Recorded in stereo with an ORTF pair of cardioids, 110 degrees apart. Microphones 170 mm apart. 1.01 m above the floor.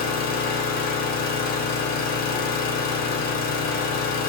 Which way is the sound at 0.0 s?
60° left.